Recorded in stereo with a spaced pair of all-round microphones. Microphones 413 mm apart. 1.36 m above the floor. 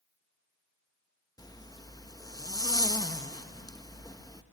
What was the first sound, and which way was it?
A zipper, 10° left (ahead or behind).